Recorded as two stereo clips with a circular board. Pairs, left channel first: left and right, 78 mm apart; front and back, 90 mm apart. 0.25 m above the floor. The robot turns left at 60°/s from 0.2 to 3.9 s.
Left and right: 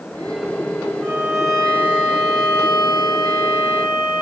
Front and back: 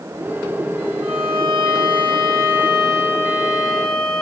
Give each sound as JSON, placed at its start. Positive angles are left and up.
{"t": 1.0, "sound": "a violin", "azimuth_deg": -155, "distance_m": 6.5}